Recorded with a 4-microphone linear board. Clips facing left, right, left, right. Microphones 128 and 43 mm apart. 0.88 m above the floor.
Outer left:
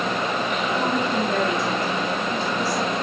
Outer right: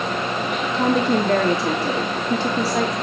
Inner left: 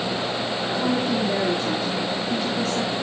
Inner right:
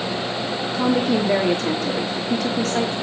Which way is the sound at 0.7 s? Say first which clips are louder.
Outer right 6 dB, inner right 5 dB; 70° right (ahead or behind).